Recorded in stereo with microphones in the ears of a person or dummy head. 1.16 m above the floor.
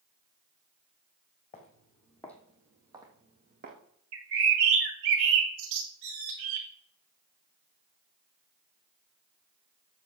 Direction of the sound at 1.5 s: 30° left (ahead or behind).